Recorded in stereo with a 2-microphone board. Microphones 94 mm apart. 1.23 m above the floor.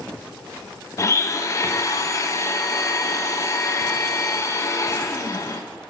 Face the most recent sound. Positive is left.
turn(degrees=35)  # may be behind; listen again after turning